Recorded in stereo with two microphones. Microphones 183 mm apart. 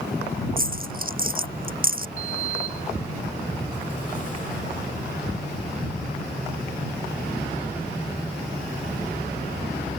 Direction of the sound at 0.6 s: 50° right (ahead or behind).